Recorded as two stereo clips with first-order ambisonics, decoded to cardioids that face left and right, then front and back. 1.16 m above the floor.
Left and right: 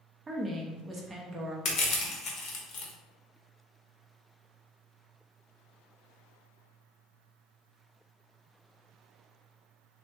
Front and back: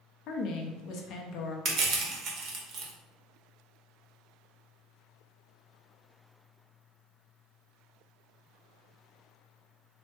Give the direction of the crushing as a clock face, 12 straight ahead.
7 o'clock.